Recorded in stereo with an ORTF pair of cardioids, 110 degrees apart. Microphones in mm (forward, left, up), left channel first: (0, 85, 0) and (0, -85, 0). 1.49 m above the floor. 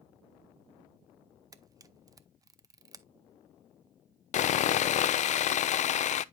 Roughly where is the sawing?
Ahead left.